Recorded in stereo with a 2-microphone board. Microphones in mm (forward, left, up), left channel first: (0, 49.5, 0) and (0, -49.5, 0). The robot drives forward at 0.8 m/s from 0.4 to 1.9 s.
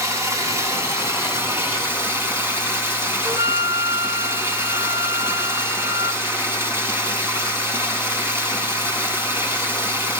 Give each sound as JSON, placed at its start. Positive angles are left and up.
{"t": 0.0, "sound": "running water", "side_deg": -30, "distance_m": 4.5}
{"t": 3.2, "sound": "a flute", "side_deg": -35, "distance_m": 0.5}